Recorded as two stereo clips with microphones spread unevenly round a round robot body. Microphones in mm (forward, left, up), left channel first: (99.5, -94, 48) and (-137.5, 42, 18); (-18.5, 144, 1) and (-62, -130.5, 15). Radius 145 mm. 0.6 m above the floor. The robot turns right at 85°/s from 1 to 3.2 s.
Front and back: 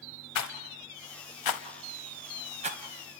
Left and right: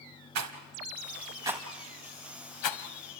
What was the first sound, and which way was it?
A rattle, 60° right.